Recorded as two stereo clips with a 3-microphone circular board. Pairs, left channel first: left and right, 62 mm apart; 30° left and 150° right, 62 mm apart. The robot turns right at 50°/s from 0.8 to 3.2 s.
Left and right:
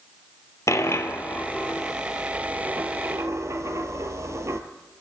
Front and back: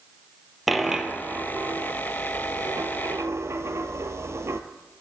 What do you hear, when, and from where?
0.7 s a dropped coin: 120° left, 0.8 m; by 4.6 s 120° right, 0.8 m